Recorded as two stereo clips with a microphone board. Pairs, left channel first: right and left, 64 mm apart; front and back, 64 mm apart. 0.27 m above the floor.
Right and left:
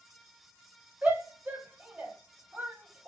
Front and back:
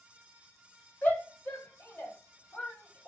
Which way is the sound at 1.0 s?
40° left.